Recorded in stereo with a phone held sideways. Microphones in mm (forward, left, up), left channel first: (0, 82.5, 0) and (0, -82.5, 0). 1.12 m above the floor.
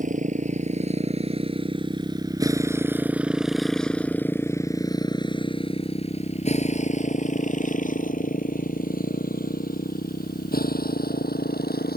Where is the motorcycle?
50° right (ahead or behind); by 12.0 s 70° left (ahead or behind).